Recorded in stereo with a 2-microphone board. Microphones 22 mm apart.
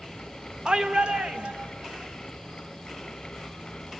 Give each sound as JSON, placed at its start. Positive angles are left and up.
{"t": 0.7, "sound": "a shout", "side_deg": -45, "distance_m": 0.7}